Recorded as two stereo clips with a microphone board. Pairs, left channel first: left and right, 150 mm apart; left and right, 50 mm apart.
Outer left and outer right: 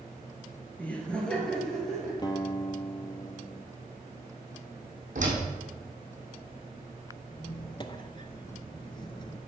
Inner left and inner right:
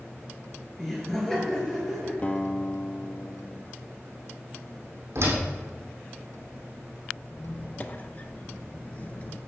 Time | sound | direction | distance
0.8 | laughter | 10° left (ahead or behind) | 1.9 m
2.2 | a guitar | 30° left (ahead or behind) | 0.8 m
5.2 | a door slam | 55° right (ahead or behind) | 3.5 m
7.3 | a squeak | 30° left (ahead or behind) | 0.6 m